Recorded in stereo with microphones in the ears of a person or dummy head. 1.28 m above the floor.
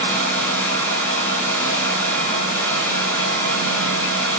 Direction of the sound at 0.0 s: 10° left (ahead or behind).